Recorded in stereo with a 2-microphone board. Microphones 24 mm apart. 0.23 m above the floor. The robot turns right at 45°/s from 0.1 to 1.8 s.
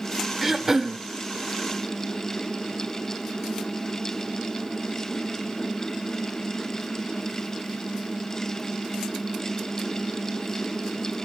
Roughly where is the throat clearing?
Centre.